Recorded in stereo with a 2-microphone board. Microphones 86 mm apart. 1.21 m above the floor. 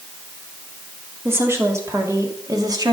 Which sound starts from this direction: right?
A woman speaking, at 1.2 s.